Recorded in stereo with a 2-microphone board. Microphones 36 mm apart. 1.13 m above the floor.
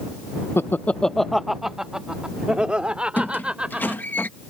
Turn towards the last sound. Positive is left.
turn(degrees=50)  # may be behind; listen again after turning